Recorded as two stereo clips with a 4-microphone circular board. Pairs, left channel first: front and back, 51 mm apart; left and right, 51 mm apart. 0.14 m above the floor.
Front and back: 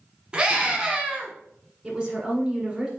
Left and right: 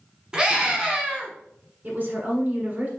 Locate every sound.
0.3 s a scream: 135° right, 1.3 m
1.8 s a woman speaking: 100° right, 1.4 m